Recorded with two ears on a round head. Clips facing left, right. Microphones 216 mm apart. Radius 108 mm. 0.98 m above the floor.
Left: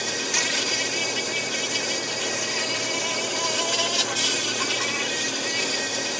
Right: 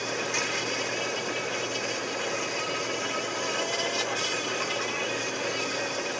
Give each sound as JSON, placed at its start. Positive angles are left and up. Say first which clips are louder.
{"t": 0.0, "sound": "an insect", "louder": "left 1 dB", "side_deg": 55}